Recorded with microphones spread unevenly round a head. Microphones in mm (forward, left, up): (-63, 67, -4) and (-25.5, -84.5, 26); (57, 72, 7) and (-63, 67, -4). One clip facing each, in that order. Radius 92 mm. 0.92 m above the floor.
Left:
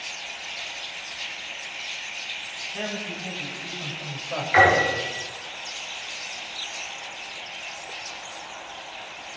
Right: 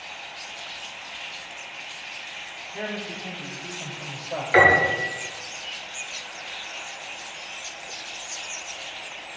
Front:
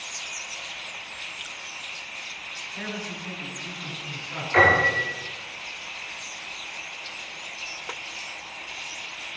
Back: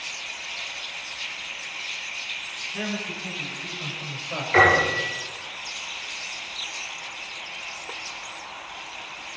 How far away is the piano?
About 7.5 m.